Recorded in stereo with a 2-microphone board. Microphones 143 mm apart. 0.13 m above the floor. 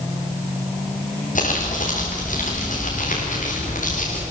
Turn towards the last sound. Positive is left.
turn(degrees=65)  # may be behind; listen again after turning